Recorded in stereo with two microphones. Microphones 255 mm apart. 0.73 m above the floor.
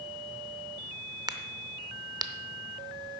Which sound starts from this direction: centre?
A crack, at 1.3 s.